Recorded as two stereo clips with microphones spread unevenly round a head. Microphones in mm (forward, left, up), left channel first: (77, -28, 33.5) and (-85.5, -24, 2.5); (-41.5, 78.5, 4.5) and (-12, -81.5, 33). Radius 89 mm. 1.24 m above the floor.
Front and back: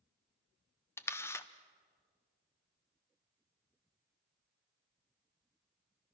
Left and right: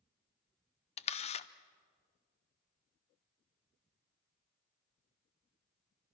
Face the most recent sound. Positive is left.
turn(degrees=80)